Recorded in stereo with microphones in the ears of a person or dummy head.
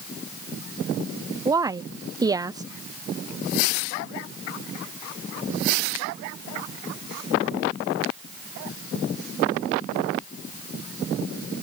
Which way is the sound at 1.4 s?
15° right (ahead or behind).